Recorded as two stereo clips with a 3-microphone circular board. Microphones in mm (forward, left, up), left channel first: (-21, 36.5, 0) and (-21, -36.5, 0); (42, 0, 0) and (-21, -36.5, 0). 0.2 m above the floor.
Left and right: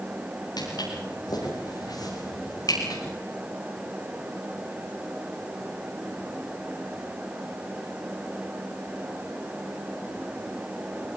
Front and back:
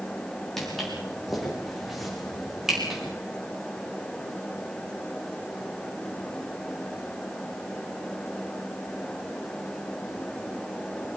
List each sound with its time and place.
0.6 s footsteps: 115° left, 9.5 m; by 3.0 s 125° left, 9 m